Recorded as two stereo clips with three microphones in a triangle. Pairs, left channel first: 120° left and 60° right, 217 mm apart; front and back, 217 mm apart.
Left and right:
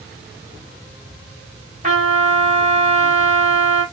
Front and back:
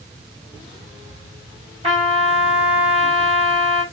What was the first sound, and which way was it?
A trumpet, 115° right.